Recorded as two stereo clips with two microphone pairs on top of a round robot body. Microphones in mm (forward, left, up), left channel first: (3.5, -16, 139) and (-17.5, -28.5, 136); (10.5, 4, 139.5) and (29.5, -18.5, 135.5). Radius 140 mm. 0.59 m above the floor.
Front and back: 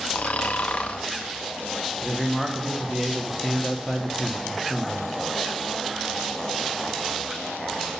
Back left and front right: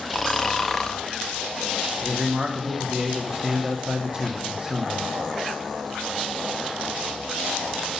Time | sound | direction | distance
0.1 | snoring | 45° left | 0.7 m
2.0 | a man speaking | 80° right | 1.3 m